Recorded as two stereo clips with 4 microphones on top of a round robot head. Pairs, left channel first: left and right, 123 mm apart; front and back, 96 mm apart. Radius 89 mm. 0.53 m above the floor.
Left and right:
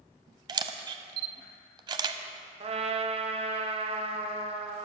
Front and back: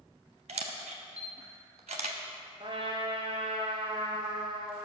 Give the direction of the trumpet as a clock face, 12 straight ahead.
4 o'clock.